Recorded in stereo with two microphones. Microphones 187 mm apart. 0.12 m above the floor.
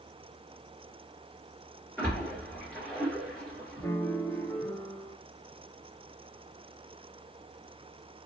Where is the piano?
15° left (ahead or behind), 0.7 m.